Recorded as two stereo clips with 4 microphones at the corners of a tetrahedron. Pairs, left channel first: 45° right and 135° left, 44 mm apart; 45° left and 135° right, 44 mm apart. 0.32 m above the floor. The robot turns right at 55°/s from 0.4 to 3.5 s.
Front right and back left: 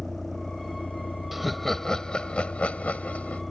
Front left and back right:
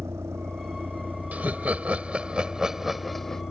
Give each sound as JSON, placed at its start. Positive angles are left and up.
{"t": 0.0, "sound": "a vehicle", "azimuth_deg": -130}
{"t": 1.3, "sound": "laughter", "azimuth_deg": -145}